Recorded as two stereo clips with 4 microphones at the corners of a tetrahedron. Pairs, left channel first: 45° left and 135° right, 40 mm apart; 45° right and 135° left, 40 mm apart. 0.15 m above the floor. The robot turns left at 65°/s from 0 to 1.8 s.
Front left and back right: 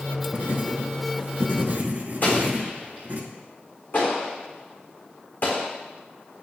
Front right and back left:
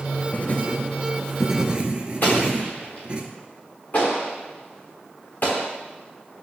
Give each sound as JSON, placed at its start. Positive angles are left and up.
{"t": 0.3, "sound": "writing", "azimuth_deg": -70, "distance_m": 0.8}
{"t": 2.2, "sound": "an explosion", "azimuth_deg": 5, "distance_m": 2.5}